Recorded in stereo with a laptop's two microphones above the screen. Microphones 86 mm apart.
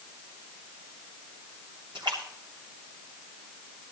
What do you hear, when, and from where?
1.9 s a splash: 60° right (ahead or behind), 3 m